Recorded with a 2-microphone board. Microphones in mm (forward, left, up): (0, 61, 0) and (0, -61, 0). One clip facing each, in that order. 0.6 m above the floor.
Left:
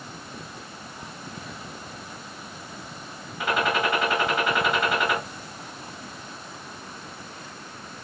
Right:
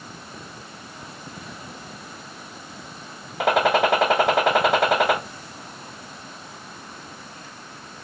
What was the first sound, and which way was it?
A gunshot, 90° right.